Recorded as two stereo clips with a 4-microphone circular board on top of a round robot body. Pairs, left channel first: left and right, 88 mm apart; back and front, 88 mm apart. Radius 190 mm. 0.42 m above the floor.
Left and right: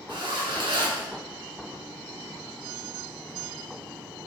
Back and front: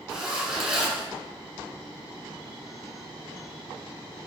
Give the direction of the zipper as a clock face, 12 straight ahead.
2 o'clock.